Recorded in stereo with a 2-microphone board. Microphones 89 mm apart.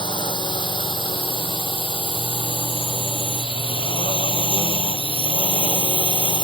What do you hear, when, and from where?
0.0 s a drone: 65° left (ahead or behind)